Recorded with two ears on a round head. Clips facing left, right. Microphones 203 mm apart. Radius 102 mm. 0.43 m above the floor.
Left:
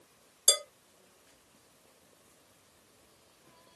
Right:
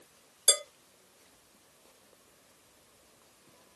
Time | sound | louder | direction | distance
0.5 | dishes clattering | even | 20° left (ahead or behind) | 1.3 m